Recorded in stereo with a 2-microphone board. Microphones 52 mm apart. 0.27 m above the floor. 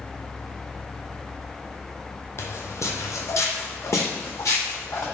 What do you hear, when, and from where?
2.4 s footsteps: 60° left (ahead or behind), 0.6 m; by 5.0 s 55° left (ahead or behind), 1.8 m